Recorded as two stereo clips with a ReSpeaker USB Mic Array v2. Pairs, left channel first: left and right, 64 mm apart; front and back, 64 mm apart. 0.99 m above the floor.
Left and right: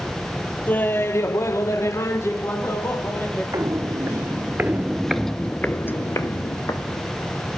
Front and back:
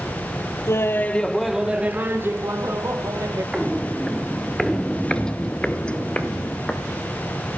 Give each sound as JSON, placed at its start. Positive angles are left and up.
{"t": 0.7, "sound": "laughter", "azimuth_deg": 30, "distance_m": 1.0}
{"t": 3.5, "sound": "footsteps", "azimuth_deg": -95, "distance_m": 1.7}